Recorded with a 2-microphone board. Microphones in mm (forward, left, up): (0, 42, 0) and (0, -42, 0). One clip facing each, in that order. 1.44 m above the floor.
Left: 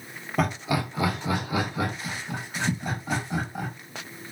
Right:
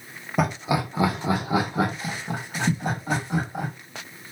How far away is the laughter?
About 0.9 m.